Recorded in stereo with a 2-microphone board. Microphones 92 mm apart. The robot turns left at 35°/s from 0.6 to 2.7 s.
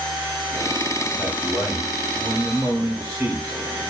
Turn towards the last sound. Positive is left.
turn(degrees=-100)